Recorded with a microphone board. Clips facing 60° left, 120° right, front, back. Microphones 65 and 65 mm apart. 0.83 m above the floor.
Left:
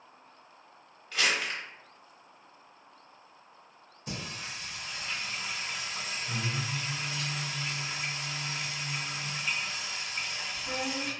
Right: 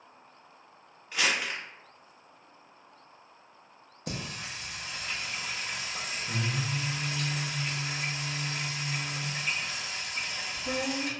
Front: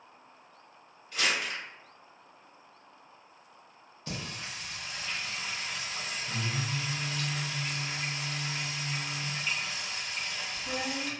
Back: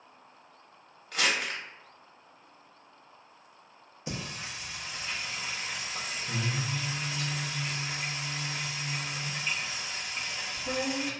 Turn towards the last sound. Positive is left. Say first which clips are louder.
# right 2 dB, back 1 dB
turn(degrees=-110)